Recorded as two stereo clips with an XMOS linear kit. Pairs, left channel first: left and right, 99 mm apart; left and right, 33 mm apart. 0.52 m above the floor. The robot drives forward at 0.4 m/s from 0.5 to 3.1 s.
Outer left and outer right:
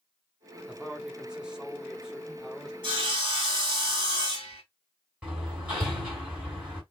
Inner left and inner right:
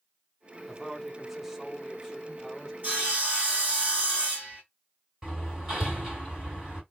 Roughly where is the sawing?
Right.